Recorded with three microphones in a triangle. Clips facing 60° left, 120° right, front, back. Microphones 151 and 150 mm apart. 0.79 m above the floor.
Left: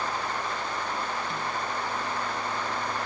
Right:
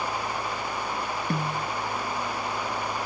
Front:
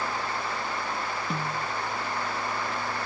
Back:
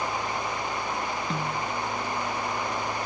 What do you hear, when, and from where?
1.3 s a snare drum: 85° right